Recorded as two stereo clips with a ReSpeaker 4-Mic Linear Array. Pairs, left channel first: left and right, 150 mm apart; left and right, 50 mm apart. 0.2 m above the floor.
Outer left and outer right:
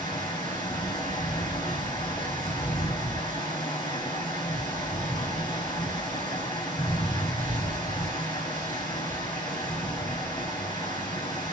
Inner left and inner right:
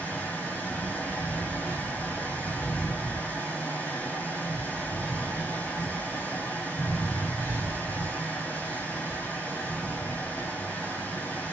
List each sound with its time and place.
0.0 s running water: 30° left (ahead or behind), 2 m